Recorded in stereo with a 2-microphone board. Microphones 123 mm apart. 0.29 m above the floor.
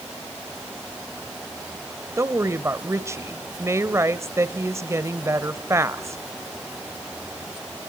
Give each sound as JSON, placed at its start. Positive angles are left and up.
{"t": 2.2, "sound": "a woman speaking", "side_deg": -25, "distance_m": 0.9}